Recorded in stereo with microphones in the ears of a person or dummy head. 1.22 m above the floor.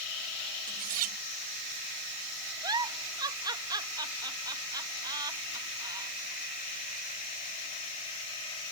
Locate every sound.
0.7 s cutlery clinking: 30° right (ahead or behind)
2.6 s a giggle: 20° right (ahead or behind)